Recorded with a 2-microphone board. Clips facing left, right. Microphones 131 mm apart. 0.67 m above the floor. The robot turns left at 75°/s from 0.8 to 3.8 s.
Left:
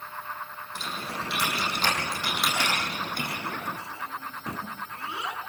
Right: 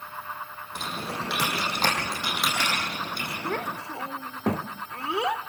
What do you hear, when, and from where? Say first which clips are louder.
0.8 s typing on a keyboard: right 2 dB; 55° right (ahead or behind), 7 m; by 3.4 s 65° left (ahead or behind), 7 m
3.5 s a child speaking: right 4 dB; 70° right (ahead or behind), 1.0 m; by 5.4 s 80° right, 1.0 m